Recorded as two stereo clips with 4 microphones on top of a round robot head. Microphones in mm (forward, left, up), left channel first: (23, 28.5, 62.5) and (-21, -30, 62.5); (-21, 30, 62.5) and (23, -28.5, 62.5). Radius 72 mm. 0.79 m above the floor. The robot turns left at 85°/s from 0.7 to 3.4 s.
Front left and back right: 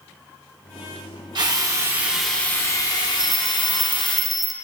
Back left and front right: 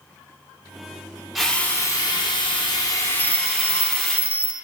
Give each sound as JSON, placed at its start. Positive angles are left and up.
{"t": 1.4, "sound": "a drill", "azimuth_deg": -140, "distance_m": 2.5}
{"t": 3.2, "sound": "a bell", "azimuth_deg": 160, "distance_m": 0.9}